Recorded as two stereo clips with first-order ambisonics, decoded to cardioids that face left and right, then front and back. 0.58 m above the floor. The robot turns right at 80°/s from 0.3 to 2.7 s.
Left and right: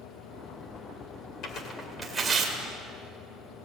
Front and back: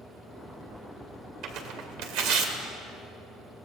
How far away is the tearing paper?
About 2.5 m.